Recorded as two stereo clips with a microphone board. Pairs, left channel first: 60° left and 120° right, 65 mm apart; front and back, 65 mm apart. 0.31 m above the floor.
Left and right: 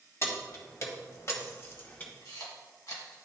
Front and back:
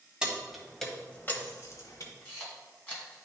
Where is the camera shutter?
65° left, 3 m.